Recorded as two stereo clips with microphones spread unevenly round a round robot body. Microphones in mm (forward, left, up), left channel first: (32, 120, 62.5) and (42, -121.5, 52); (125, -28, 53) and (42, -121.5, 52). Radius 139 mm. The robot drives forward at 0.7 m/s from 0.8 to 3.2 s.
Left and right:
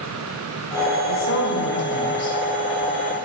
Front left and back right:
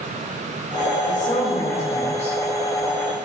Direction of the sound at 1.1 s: 85° left.